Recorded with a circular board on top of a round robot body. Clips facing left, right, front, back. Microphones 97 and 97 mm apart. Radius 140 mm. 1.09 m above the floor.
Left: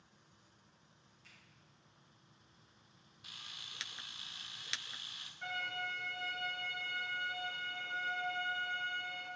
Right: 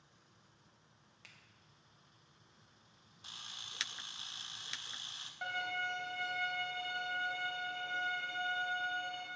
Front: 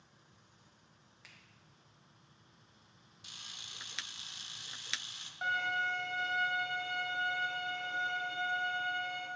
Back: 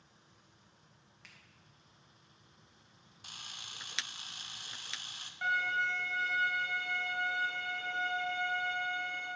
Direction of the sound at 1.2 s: 85° right.